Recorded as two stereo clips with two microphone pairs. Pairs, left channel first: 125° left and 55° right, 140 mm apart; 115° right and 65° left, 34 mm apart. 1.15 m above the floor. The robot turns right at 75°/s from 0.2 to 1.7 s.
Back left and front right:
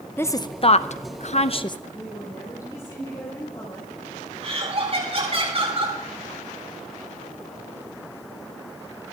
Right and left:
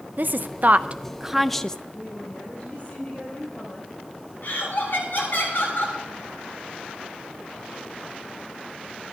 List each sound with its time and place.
0.2 s a woman speaking: 60° left, 0.5 m; by 1.8 s 170° left, 0.5 m
1.9 s a woman speaking: 175° right, 4.5 m
4.4 s laughter: 100° right, 7 m